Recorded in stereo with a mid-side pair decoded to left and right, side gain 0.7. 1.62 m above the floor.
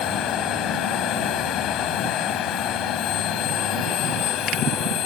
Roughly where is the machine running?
Ahead left.